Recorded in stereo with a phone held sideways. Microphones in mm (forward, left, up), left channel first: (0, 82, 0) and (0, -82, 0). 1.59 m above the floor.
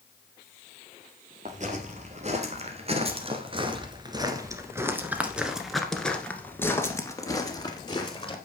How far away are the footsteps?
About 2.5 m.